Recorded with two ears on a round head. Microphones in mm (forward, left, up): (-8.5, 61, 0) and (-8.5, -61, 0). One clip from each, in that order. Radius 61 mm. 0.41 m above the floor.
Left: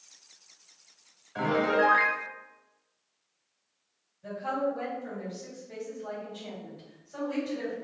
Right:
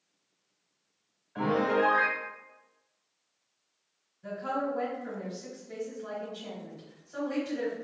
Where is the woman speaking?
20° right (ahead or behind), 1.5 m.